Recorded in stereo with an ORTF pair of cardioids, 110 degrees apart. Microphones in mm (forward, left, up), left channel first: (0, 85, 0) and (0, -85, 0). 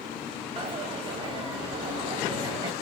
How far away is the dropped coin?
About 2.0 m.